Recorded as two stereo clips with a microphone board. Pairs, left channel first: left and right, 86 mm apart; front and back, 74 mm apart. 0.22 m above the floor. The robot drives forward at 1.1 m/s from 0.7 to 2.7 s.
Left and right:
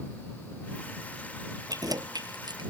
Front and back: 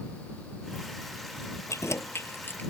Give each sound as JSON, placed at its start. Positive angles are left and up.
{"t": 1.7, "sound": "keys jangling", "azimuth_deg": -45}